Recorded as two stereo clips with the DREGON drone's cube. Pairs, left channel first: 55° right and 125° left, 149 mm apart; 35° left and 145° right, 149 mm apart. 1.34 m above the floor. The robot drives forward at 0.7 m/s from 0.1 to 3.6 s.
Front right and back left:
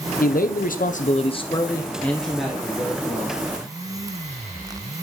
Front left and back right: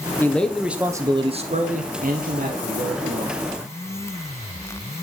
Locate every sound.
0.2 s a man speaking: 45° right, 0.9 m; by 3.4 s 160° right, 1.7 m